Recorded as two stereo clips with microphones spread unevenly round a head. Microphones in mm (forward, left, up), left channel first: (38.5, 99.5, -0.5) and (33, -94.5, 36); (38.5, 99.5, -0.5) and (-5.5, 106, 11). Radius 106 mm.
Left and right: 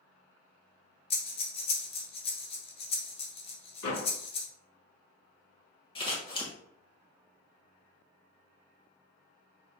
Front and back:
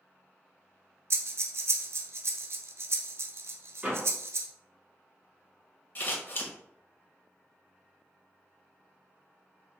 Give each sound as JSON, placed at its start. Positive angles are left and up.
{"t": 1.1, "sound": "breathing", "azimuth_deg": 140, "distance_m": 0.7}
{"t": 3.8, "sound": "a door slam", "azimuth_deg": 115, "distance_m": 2.0}
{"t": 6.0, "sound": "scissors", "azimuth_deg": 30, "distance_m": 1.7}